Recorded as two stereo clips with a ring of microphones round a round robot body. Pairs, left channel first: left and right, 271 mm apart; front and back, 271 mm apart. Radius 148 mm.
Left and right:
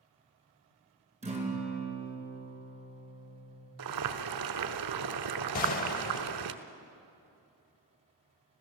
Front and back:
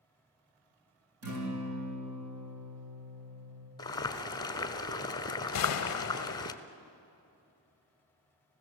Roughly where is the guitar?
Behind right.